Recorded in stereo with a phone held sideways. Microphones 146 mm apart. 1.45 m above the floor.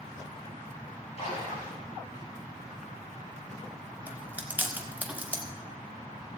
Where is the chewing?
10° right (ahead or behind), 1.3 m.